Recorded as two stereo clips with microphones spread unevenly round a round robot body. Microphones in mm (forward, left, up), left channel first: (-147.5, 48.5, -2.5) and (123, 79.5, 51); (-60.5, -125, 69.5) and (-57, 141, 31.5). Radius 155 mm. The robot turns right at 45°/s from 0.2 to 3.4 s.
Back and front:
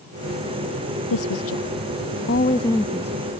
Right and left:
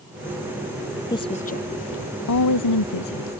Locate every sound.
1.1 s a woman speaking: 165° right; by 3.4 s 65° right